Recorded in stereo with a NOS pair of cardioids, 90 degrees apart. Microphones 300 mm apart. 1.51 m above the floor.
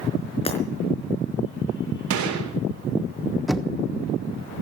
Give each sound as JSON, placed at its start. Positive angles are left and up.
{"t": 0.5, "sound": "breaking glass", "azimuth_deg": 20, "distance_m": 4.5}
{"t": 2.1, "sound": "a gunshot", "azimuth_deg": -70, "distance_m": 3.5}
{"t": 3.5, "sound": "knocking", "azimuth_deg": 0, "distance_m": 1.3}